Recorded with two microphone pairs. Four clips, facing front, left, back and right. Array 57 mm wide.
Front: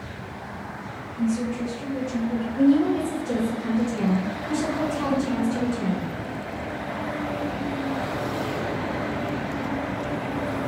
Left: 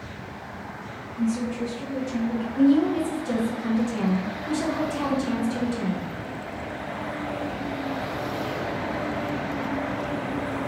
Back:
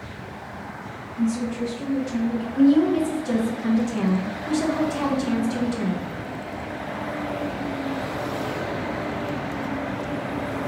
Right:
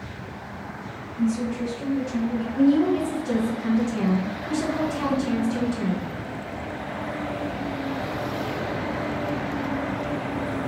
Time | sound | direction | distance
1.2 | a woman speaking | 165° left | 1.0 m
2.6 | a woman speaking | 170° left | 0.7 m